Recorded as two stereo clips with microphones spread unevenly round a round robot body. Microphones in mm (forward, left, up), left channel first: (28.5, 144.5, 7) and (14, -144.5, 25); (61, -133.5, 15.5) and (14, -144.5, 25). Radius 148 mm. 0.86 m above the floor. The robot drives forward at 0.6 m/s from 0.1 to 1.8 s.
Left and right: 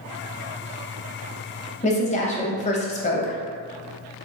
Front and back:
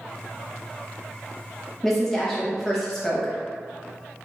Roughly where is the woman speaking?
Left.